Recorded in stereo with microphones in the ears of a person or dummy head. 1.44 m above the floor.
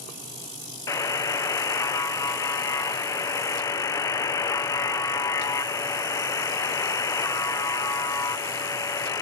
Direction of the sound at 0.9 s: 15° left (ahead or behind).